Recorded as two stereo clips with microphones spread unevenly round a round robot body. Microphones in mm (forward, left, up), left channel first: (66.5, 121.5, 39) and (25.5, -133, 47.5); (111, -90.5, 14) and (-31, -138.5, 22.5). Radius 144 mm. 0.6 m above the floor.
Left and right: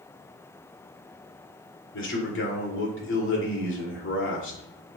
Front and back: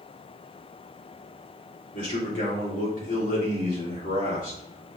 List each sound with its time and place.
1.9 s a man speaking: 50° left, 2.5 m